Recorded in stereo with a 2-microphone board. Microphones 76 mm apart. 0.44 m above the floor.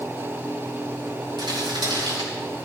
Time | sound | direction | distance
1.4 | crumpling | 70° right (ahead or behind) | 5.5 m